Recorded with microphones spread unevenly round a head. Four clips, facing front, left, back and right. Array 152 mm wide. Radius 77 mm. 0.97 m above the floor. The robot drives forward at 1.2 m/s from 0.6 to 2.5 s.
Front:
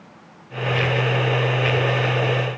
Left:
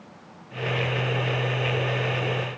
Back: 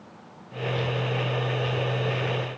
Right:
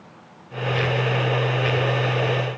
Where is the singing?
I don't hear singing.